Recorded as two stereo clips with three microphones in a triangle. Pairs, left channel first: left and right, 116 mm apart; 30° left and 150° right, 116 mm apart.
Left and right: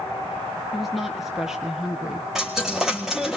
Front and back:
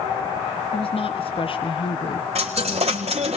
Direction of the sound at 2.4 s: 175° right.